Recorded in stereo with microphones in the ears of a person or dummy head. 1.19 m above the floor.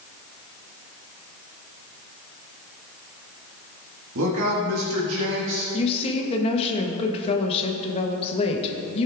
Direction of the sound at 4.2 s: 65° right (ahead or behind).